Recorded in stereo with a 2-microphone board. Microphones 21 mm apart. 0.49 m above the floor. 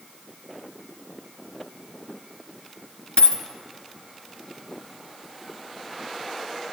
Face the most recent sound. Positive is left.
turn(degrees=60)  # may be behind; listen again after turning